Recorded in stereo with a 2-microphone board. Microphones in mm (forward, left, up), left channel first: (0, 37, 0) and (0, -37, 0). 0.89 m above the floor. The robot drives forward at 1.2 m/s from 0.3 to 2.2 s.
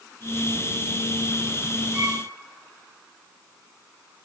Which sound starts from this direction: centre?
A violin, at 1.9 s.